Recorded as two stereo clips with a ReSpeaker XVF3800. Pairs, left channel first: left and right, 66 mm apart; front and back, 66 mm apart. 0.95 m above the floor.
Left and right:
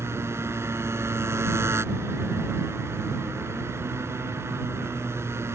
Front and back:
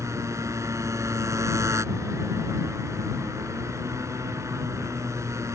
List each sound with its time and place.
0.0 s a motorcycle: 135° right